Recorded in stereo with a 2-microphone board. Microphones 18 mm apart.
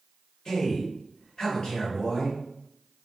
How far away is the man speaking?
About 1.6 m.